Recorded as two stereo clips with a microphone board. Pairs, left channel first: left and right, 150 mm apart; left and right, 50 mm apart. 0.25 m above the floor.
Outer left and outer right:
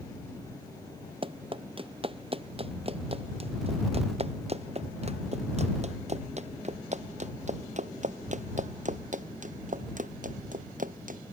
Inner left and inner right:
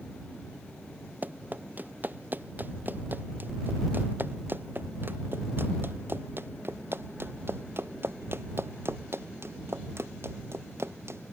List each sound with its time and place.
1.2 s running footsteps: 35° right (ahead or behind); by 11.3 s 65° right (ahead or behind)